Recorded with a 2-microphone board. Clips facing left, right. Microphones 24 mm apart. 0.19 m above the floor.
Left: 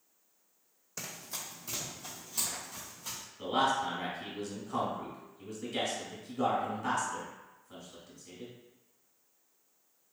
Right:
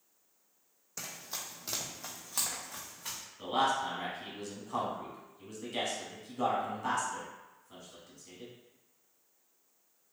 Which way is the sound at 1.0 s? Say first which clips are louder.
Even; 5° left (ahead or behind).